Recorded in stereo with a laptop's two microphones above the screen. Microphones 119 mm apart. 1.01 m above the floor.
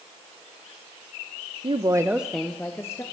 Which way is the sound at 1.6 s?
45° right (ahead or behind).